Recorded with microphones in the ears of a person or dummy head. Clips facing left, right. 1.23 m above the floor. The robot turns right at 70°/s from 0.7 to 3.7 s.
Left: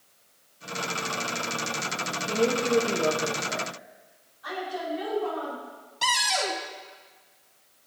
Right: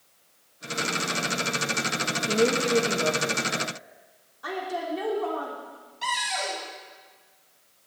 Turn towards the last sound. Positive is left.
turn(degrees=70)  # may be behind; listen again after turning